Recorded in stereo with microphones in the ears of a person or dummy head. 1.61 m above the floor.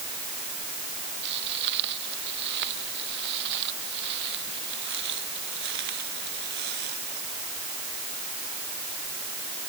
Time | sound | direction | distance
1.2 | footsteps | 55° right (ahead or behind) | ?